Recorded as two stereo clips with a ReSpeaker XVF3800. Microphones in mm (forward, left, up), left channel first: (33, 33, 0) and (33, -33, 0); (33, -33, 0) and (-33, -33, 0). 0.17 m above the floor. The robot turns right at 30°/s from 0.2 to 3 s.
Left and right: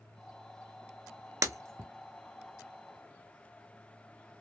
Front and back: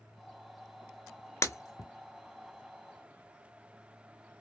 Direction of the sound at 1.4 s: 50° right.